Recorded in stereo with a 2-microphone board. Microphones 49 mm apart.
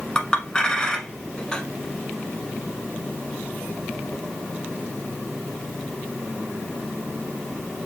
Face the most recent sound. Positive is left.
turn(degrees=15)  # may be behind; listen again after turning